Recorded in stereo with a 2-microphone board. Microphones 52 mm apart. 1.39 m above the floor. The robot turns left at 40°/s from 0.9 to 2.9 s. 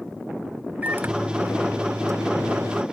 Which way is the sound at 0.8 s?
35° right.